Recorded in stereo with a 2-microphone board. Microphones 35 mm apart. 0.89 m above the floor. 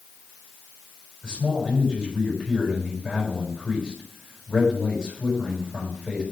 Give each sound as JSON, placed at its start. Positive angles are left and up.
{"t": 1.2, "sound": "a man speaking", "side_deg": -20, "distance_m": 6.0}